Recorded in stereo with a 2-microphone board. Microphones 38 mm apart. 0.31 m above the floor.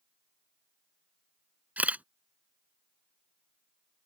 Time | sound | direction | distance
1.8 | a camera shutter | 40° right (ahead or behind) | ?